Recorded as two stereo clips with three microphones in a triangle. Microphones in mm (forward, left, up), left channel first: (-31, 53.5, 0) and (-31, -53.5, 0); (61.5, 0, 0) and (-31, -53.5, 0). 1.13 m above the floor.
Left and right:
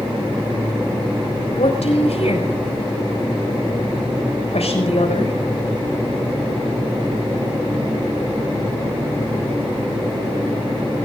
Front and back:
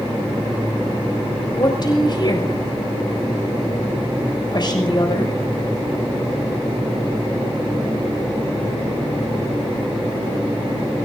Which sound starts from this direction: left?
A woman speaking, at 1.6 s.